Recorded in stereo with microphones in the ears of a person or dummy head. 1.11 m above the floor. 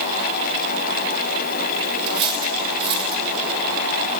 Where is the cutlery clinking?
30° right (ahead or behind), 2.5 m.